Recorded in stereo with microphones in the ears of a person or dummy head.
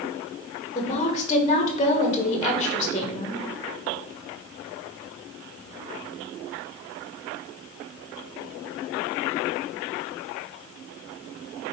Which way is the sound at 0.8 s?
25° left (ahead or behind).